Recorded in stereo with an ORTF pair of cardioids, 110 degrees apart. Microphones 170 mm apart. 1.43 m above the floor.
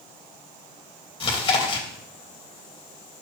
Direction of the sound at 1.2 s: 30° left.